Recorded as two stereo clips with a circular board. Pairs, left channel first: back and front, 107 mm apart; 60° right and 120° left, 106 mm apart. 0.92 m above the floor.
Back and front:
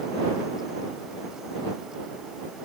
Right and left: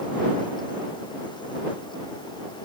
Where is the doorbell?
I don't hear a doorbell.